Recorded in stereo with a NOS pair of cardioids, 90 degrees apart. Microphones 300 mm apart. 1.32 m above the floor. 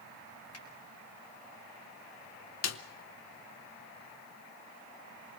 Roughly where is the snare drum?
Ahead left.